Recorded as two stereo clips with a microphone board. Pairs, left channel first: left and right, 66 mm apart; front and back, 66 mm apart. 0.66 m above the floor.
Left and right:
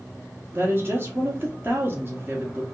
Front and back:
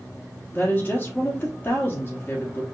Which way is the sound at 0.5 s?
50° right.